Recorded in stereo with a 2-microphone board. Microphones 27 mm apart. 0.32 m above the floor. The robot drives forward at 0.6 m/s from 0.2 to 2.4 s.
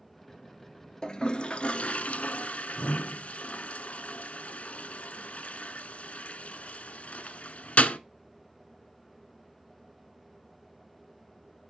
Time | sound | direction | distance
1.0 | a toilet flushing | 35° left (ahead or behind) | 0.8 m